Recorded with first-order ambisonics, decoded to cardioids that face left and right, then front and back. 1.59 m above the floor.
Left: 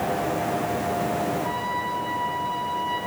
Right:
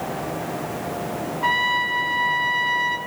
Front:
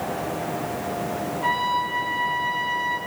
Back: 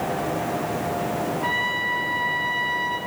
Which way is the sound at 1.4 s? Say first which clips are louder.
Right 7 dB, front 2 dB; 90° right.